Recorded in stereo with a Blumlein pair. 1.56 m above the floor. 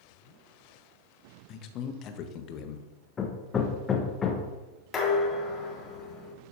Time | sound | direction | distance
1.5 | a man speaking | 35° left | 1.1 m
3.2 | hammering | 20° left | 1.1 m
4.9 | dishes clattering | 20° left | 2.5 m